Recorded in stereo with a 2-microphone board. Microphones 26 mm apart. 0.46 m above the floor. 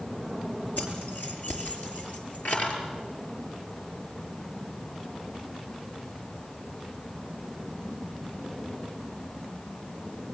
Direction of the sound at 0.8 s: 85° left.